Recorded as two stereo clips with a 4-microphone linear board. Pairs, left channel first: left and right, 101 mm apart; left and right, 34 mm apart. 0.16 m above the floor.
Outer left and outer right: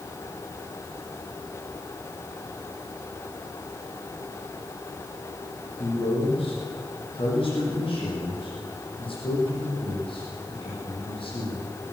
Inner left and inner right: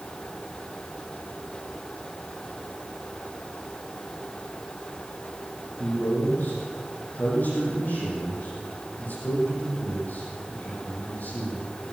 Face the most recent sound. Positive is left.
turn(degrees=60)  # may be behind; listen again after turning